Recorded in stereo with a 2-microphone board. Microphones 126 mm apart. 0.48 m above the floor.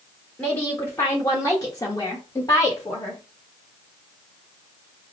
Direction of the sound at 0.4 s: 15° left (ahead or behind).